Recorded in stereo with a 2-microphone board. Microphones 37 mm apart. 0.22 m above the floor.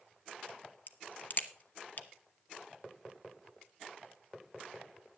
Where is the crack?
50° left (ahead or behind), 1.1 m.